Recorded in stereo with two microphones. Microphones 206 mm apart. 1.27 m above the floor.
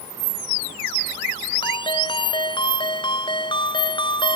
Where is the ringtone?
25° left (ahead or behind).